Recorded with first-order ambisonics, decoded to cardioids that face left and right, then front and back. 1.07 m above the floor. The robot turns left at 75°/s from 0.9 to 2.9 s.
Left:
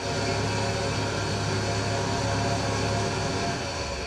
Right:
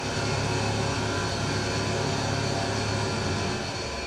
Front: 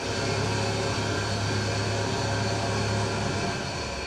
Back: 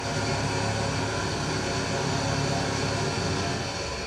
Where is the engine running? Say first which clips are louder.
Left 1 dB, even; 20° right, 0.7 m; by 4.1 s 170° right, 0.7 m.